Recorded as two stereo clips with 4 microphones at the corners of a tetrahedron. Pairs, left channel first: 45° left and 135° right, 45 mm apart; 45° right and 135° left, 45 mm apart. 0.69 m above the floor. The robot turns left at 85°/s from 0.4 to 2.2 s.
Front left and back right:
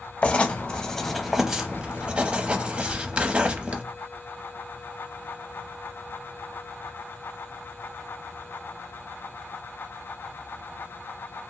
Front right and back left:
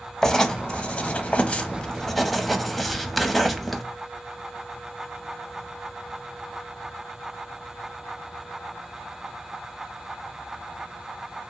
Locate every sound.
0.2 s writing: 20° left, 0.5 m; by 3.8 s 130° right, 0.5 m
2.9 s whispering: 60° left, 1.4 m